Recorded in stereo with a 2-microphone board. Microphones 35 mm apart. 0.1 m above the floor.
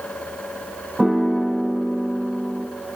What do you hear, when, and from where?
1.0 s a piano: 15° right (ahead or behind), 0.6 m